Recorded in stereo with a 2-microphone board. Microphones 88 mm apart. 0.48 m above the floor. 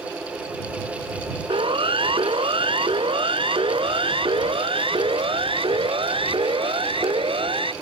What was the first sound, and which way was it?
A siren, 75° right (ahead or behind).